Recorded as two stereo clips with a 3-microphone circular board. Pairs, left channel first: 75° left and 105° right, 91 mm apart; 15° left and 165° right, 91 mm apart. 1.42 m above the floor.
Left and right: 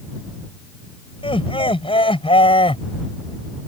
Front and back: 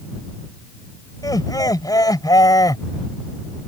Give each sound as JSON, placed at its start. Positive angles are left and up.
{"t": 1.2, "sound": "laughter", "azimuth_deg": 60}